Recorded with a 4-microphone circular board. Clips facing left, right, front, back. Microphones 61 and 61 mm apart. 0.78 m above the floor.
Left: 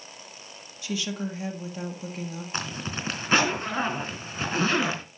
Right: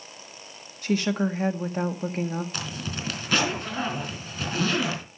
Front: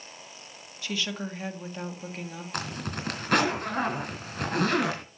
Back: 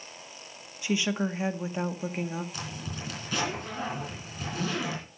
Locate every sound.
0.8 s a woman speaking: 115° right, 1.6 m
2.5 s a zipper: 30° left, 3.5 m